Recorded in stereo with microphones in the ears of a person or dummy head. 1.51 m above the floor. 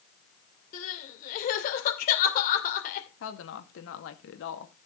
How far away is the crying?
About 2.5 m.